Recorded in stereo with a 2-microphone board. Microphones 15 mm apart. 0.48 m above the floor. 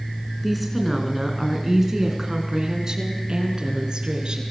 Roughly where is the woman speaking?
Centre.